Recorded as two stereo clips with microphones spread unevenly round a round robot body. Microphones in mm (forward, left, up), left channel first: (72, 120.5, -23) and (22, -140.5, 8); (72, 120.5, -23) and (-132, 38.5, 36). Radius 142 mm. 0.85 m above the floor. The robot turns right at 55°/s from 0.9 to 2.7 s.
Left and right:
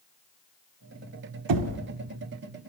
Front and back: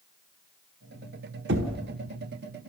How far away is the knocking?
About 1.2 m.